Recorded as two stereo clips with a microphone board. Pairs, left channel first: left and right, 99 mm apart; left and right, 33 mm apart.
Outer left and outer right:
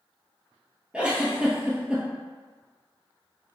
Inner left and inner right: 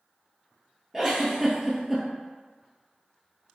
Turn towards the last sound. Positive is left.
turn(degrees=-10)  # may be behind; listen again after turning